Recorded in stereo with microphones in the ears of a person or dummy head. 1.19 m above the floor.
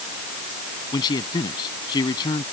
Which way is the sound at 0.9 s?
20° left (ahead or behind).